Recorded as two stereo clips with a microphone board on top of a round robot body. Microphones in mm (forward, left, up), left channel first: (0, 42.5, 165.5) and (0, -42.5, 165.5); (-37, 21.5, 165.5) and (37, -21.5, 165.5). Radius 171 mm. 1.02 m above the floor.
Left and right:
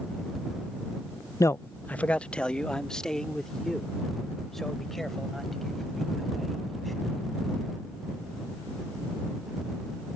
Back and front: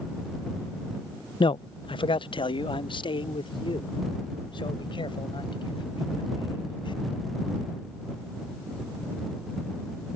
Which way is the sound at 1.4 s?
140° left.